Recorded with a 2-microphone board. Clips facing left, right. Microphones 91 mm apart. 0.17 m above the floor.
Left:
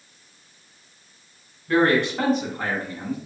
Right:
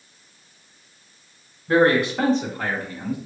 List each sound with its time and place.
1.7 s a man speaking: 20° right (ahead or behind), 1.5 m; by 3.2 s 30° left (ahead or behind), 2 m